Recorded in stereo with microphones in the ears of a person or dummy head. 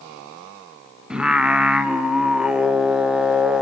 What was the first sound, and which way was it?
Singing, 5° right (ahead or behind).